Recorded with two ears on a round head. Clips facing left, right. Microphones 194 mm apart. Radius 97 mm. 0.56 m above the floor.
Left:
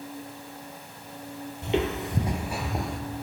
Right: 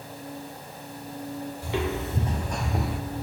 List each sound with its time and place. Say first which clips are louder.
1.6 s footsteps: left 3 dB; 20° left (ahead or behind), 0.8 m; by 3.0 s 5° right (ahead or behind), 0.5 m